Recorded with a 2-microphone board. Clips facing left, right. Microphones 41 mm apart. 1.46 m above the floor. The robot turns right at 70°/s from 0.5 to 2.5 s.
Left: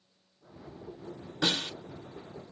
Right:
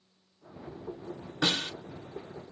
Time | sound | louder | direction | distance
1.4 | a snare drum | right 1 dB | 20° right (ahead or behind) | 2.0 m